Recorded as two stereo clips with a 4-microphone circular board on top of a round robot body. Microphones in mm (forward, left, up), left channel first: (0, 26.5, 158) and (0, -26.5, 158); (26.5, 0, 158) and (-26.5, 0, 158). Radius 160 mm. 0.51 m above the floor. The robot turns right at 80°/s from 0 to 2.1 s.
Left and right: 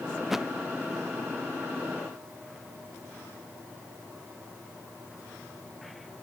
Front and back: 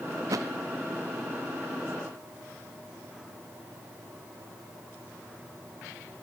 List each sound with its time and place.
0.2 s a thud: 175° left; by 0.5 s 160° right